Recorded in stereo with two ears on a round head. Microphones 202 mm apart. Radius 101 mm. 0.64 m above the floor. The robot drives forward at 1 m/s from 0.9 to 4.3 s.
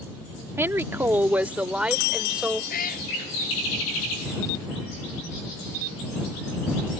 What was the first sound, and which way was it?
A woman speaking, 10° right (ahead or behind).